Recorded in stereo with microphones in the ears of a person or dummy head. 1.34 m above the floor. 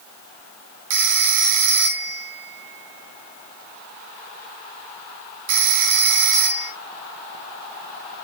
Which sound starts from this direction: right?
A phone ringing, at 0.9 s.